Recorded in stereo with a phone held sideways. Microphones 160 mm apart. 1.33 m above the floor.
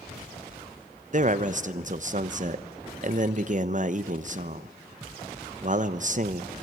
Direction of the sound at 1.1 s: 50° right (ahead or behind).